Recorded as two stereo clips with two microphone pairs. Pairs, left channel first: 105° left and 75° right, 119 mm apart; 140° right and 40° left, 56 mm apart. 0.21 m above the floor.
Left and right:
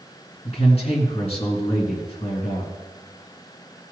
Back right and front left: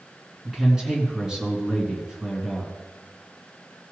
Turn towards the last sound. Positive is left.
turn(degrees=115)